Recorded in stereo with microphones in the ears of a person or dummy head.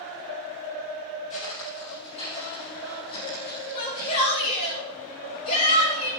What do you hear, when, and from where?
1.3 s footsteps: 35° left (ahead or behind), 3.5 m; by 4.7 s 25° left (ahead or behind), 6 m
3.7 s a shout: 40° left (ahead or behind), 5 m